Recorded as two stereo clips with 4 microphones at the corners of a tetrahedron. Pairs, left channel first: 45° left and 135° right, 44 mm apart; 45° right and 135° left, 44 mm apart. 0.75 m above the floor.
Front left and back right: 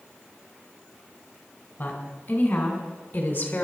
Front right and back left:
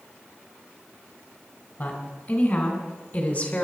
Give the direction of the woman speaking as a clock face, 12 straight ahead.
12 o'clock.